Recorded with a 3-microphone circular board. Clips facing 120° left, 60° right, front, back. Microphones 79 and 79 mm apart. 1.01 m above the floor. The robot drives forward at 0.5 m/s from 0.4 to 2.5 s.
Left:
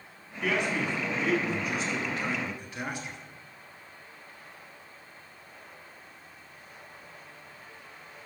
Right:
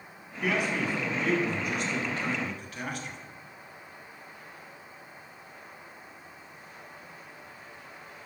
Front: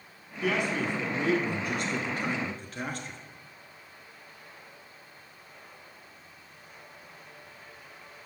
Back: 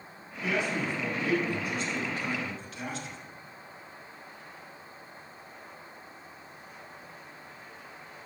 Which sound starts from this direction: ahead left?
A man speaking, at 0.4 s.